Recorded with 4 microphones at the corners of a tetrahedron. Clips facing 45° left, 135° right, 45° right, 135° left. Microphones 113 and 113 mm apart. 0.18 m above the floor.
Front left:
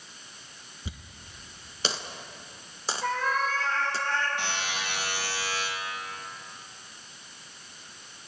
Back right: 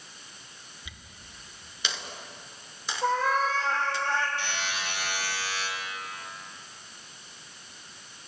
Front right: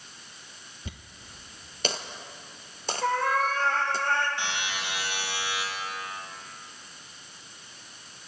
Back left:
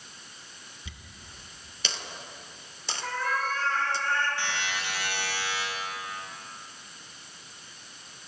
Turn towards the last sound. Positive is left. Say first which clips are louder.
# front left 1 dB, even
turn(degrees=25)